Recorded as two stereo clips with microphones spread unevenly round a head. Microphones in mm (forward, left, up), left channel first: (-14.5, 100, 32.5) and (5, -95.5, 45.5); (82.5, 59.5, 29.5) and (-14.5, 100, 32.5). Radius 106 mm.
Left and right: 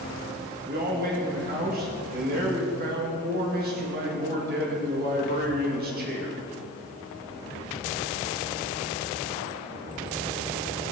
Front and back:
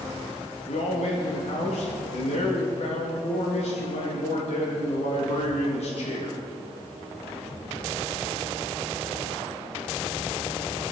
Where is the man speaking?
40° right, 2 m.